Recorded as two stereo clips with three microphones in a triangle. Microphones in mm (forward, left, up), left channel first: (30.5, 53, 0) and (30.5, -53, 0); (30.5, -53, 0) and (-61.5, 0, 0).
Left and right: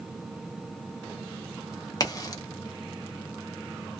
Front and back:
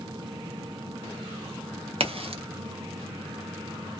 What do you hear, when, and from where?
2.0 s a crack: 140° left, 0.7 m